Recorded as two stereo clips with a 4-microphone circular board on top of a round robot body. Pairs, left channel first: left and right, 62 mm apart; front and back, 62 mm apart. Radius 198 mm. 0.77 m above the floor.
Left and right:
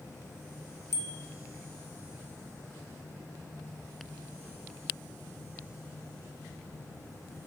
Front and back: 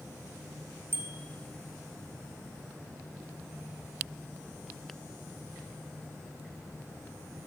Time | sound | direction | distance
0.9 | a bicycle bell | 130° left | 4 m